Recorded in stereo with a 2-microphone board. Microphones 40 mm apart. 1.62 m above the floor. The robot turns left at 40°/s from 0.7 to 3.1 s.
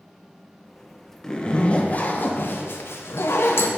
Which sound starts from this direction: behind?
A zipper, at 1.2 s.